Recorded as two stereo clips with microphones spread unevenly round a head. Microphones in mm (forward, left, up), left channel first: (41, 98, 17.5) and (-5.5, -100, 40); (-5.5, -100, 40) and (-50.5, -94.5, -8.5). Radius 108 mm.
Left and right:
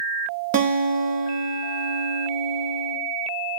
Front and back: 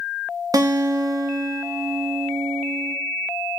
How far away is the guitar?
About 0.7 m.